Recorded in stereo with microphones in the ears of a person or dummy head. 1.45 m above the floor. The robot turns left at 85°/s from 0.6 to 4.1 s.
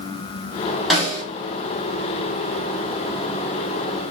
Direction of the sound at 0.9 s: Centre (ahead or behind).